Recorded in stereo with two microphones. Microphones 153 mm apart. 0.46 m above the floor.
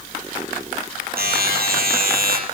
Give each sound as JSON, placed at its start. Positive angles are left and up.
{"t": 1.2, "sound": "a buzzer", "side_deg": -80, "distance_m": 4.5}